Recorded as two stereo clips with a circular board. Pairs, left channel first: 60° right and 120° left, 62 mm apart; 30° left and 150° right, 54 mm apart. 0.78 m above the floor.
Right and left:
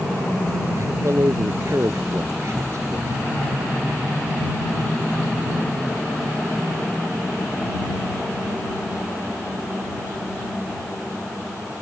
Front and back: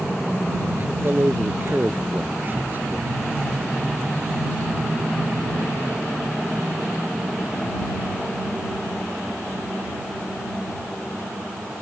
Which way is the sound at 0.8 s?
160° left.